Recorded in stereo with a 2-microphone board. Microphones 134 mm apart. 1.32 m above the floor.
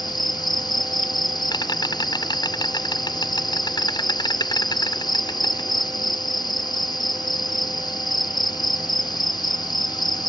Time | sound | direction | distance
0.0 | an insect | 30° left (ahead or behind) | ?